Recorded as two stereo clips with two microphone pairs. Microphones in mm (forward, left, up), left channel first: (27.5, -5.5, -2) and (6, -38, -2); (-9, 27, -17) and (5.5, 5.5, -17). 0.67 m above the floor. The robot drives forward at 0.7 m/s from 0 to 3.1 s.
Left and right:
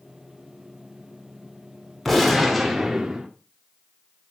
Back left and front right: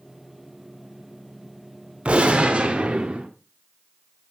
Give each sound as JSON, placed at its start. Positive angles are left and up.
{"t": 2.0, "sound": "a gunshot", "azimuth_deg": -30, "distance_m": 1.9}